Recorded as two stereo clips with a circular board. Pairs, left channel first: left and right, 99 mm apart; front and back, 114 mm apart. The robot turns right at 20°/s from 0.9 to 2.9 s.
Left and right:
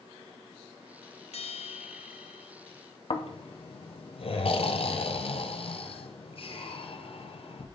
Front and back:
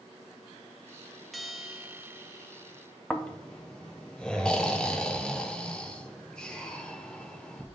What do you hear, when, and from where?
1.3 s a bell: 90° left, 0.5 m; by 2.5 s 115° left, 0.5 m
3.1 s snoring: 80° left, 0.7 m